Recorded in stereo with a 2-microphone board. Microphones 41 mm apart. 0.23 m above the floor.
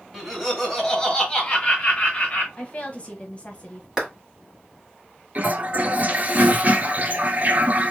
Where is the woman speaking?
35° left (ahead or behind), 1.1 m.